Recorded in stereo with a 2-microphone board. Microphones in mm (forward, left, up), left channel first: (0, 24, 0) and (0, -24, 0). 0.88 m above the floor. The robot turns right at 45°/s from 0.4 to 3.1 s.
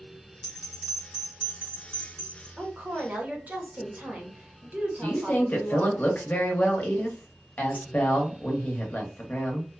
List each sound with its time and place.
0.4 s a bell: 10° left (ahead or behind), 1.0 m; by 2.5 s 75° right (ahead or behind), 1.0 m
2.6 s a woman speaking: 15° right (ahead or behind), 0.9 m; by 6.0 s 35° right (ahead or behind), 0.9 m
5.0 s a woman speaking: 40° left (ahead or behind), 0.8 m